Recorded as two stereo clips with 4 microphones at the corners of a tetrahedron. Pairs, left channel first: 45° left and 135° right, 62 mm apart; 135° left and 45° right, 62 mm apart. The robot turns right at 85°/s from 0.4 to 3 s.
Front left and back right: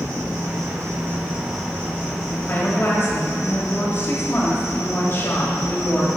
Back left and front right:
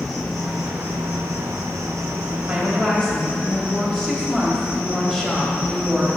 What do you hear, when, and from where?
0.0 s an insect: 145° right, 1.7 m; by 6.2 s 80° left, 1.7 m
2.5 s a woman speaking: 15° left, 1.3 m; by 6.1 s 60° left, 1.3 m